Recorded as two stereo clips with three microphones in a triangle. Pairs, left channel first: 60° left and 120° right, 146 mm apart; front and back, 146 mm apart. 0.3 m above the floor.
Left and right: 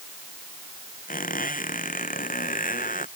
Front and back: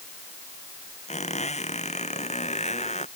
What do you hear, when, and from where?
1.1 s a squeak: 40° left